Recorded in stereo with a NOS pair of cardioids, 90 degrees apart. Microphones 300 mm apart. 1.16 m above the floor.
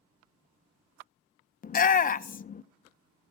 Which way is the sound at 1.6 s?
30° left.